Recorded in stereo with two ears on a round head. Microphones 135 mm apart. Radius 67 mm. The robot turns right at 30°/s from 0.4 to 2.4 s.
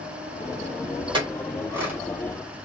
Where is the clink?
35° right (ahead or behind), 2 m; by 2.0 s 10° right (ahead or behind), 2 m.